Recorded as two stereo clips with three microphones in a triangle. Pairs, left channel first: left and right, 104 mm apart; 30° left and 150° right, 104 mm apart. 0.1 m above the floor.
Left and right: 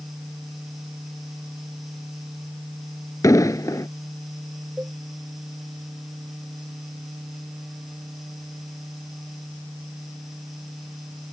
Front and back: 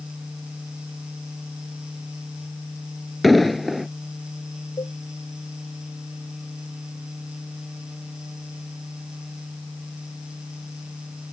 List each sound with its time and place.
3.2 s an explosion: 120° left
4.8 s a cowbell: 15° right